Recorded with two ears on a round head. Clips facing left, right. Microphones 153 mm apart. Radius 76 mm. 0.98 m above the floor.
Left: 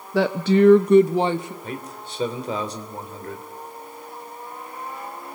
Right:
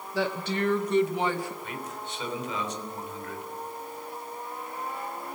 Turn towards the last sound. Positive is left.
turn(degrees=35)  # may be behind; listen again after turning